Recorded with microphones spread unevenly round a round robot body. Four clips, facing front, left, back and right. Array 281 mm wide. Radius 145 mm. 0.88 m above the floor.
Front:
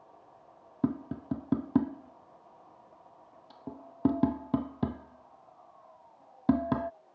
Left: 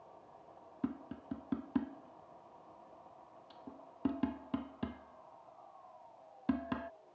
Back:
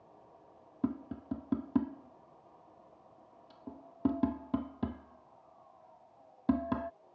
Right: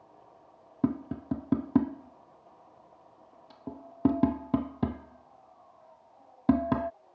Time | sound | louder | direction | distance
0.8 | tapping | right 11 dB, front 4 dB | 45° right | ?